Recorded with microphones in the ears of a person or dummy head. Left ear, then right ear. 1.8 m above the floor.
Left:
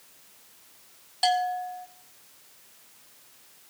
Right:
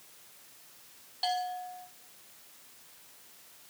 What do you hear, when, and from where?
1.2 s a bell: 15° left (ahead or behind), 0.6 m